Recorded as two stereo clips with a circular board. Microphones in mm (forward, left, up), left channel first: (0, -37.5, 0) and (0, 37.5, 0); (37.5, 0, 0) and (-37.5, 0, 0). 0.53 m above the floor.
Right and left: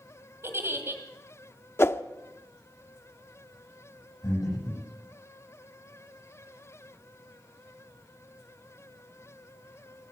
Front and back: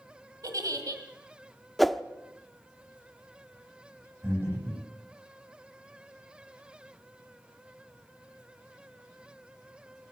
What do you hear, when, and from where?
0.4 s a giggle: 145° left, 1.8 m
1.8 s a whoosh: 90° right, 0.6 m
4.2 s breathing: 120° right, 9.5 m